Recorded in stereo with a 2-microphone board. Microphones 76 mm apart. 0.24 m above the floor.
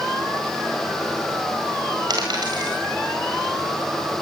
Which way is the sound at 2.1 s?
70° right (ahead or behind).